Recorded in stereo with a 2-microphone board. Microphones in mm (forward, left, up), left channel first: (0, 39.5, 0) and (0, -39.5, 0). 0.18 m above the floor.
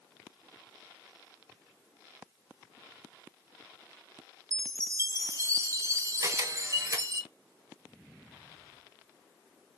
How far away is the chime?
About 0.6 m.